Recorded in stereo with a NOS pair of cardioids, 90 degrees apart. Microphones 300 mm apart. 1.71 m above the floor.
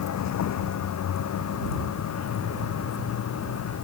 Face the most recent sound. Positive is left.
turn(degrees=55)